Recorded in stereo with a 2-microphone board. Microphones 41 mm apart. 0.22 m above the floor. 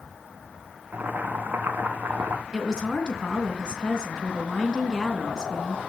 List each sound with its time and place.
0.9 s boiling: 55° right (ahead or behind), 1.9 m
2.5 s a woman speaking: 20° left (ahead or behind), 3 m